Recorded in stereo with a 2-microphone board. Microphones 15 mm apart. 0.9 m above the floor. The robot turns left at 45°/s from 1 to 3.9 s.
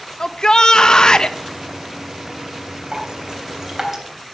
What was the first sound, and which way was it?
A shout, 45° left (ahead or behind).